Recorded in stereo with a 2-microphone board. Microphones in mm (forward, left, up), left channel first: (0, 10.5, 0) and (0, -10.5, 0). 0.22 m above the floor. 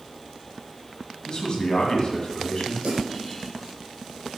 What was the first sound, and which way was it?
A man speaking, 40° left (ahead or behind).